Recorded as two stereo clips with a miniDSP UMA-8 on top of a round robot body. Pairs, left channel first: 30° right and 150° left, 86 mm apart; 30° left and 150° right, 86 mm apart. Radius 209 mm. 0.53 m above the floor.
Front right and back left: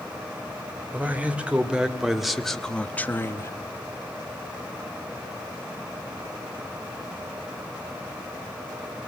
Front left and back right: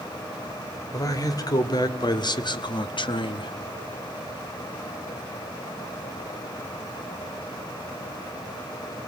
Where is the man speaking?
75° left, 2.5 m; by 3.5 s 20° left, 1.3 m.